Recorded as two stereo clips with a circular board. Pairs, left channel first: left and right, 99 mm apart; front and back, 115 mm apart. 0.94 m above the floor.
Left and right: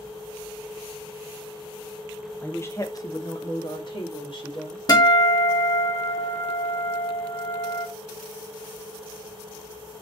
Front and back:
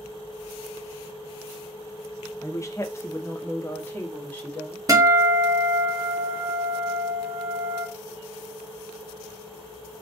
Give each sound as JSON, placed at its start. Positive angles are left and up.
{"t": 2.4, "sound": "a woman speaking", "azimuth_deg": 35, "distance_m": 0.8}
{"t": 4.9, "sound": "a guitar", "azimuth_deg": 125, "distance_m": 1.1}